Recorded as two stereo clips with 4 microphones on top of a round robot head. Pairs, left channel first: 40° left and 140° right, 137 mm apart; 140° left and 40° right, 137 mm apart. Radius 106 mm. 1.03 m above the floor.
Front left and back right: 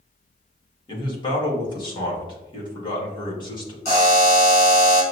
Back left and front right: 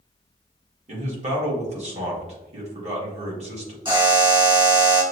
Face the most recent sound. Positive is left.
turn(degrees=10)